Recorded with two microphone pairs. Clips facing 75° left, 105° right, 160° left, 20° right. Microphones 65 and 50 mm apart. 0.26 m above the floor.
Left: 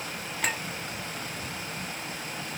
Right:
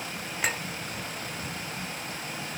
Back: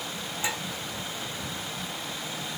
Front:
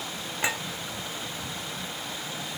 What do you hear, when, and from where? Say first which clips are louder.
0.4 s a clink: even, front 3 dB; 30° right, 2.0 m